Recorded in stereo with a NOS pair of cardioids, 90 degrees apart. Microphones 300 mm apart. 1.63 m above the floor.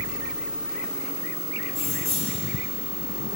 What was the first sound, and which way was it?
Keys jangling, 45° left.